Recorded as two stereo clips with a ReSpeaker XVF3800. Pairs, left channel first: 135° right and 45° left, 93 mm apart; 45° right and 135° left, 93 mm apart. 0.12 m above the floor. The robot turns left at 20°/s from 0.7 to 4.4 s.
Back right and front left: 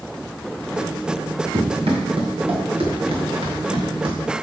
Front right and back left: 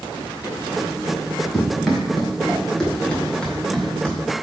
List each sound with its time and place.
1.5 s running footsteps: 45° left, 3 m; by 4.2 s 30° left, 4 m